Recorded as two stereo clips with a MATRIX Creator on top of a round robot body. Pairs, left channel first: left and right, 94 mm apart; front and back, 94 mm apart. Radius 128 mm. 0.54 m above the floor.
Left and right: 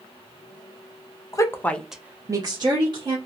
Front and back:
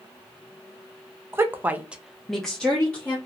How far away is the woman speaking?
About 0.9 m.